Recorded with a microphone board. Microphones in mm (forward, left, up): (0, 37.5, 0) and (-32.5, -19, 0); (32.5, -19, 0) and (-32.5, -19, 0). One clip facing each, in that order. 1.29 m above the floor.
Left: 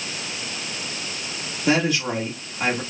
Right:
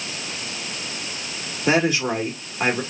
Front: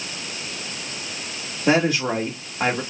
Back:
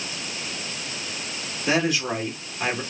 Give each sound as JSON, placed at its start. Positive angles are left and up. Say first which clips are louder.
{"t": 1.7, "sound": "a woman speaking", "louder": "right 1 dB, front 4 dB", "azimuth_deg": -55, "distance_m": 1.9}